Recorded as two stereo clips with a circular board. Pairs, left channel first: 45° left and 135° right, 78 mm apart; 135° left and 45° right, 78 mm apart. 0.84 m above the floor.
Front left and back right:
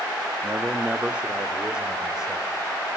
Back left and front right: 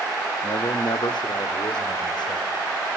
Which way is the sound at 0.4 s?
155° left.